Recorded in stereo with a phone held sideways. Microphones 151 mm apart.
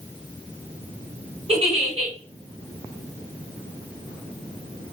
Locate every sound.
1.5 s a giggle: 45° right (ahead or behind), 3 m